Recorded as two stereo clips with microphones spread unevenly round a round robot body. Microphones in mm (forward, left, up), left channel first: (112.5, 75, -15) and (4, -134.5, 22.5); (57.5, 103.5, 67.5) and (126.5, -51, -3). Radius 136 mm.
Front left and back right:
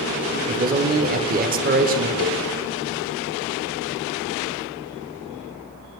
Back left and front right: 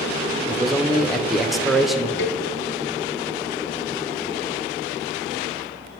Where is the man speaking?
100° right, 0.8 m.